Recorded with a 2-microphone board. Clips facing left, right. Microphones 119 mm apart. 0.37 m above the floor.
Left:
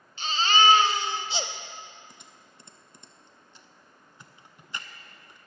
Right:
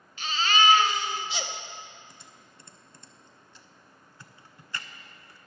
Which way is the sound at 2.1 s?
20° left (ahead or behind).